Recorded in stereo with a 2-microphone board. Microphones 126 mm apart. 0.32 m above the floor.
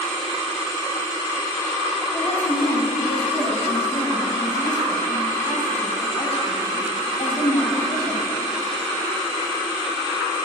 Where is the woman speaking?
55° left (ahead or behind), 2 m.